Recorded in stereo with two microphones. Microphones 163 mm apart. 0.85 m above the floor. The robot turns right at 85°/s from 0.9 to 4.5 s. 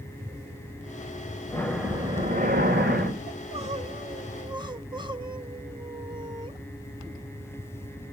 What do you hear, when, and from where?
1.5 s breathing: 160° left, 2.0 m; by 3.2 s 55° right, 2.0 m
3.3 s crying: 145° right, 1.2 m; by 6.6 s 40° right, 1.2 m